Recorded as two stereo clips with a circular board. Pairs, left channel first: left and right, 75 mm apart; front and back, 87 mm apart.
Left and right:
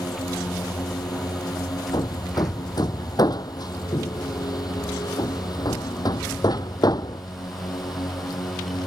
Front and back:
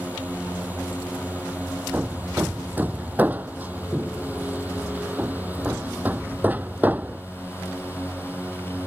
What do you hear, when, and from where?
0.0 s a drone: 110° left
1.9 s hammering: 110° left